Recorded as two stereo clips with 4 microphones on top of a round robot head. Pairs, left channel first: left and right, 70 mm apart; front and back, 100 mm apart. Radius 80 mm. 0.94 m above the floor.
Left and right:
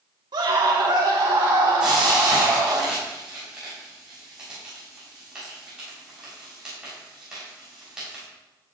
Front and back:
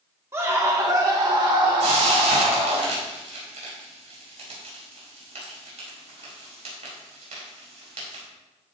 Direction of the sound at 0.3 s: 110° right.